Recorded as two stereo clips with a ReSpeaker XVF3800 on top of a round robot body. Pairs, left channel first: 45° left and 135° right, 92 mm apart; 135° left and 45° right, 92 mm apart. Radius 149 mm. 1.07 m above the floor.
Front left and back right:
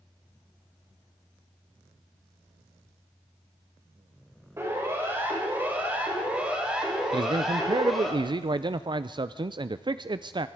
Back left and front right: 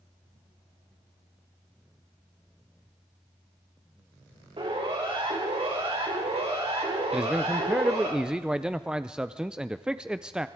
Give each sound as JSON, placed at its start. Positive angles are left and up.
{"t": 4.6, "sound": "a siren", "azimuth_deg": -75, "distance_m": 6.0}
{"t": 7.1, "sound": "a man speaking", "azimuth_deg": -125, "distance_m": 0.8}